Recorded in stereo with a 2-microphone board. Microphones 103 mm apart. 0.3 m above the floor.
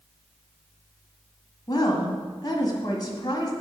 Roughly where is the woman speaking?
Left.